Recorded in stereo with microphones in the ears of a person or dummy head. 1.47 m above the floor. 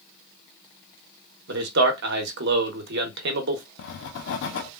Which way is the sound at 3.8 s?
70° left (ahead or behind).